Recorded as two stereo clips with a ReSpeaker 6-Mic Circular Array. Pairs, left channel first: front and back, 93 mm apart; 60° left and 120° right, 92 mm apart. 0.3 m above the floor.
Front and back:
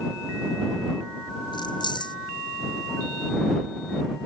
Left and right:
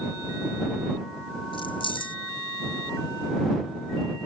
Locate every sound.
1.5 s keys jangling: 35° left